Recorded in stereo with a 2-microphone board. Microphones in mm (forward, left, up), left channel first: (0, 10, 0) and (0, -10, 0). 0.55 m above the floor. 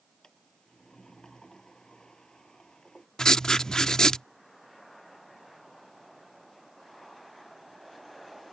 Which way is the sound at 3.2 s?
35° left (ahead or behind).